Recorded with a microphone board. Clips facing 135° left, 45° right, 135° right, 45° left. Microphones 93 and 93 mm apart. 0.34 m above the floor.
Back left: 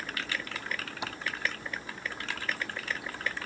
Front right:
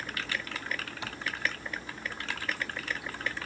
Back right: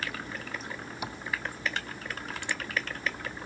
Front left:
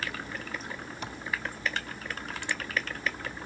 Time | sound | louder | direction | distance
1.0 | tapping | back left 2 dB, back right 3 dB | 165° left | 0.9 m